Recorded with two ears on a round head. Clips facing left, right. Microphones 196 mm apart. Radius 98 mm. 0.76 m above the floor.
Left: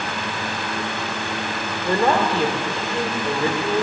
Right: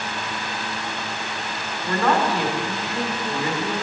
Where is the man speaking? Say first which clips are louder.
Left 2 dB; 25° left (ahead or behind), 1.7 m.